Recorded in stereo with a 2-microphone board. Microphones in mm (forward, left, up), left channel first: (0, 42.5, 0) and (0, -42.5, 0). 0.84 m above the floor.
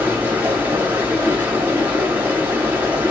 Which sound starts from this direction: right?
Running water, at 0.0 s.